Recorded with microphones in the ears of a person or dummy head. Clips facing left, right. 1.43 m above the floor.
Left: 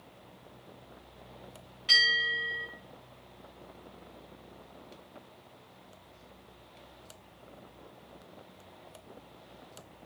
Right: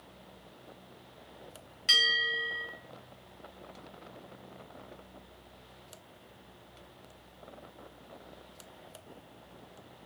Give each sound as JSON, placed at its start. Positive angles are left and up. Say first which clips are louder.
{"t": 1.9, "sound": "a bell", "louder": "even", "side_deg": -25, "distance_m": 1.6}